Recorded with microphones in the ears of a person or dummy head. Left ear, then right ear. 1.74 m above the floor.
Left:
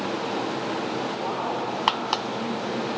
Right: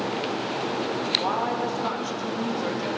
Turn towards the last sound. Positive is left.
turn(degrees=-75)  # may be behind; listen again after turning